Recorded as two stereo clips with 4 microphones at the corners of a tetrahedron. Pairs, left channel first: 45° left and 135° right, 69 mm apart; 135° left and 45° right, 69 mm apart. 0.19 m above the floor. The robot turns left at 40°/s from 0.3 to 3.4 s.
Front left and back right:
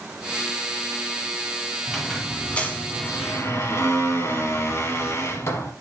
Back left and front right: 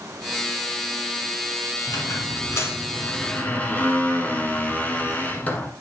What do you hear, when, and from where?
1.9 s a squeak: 135° left, 1.3 m; by 5.7 s 75° left, 1.3 m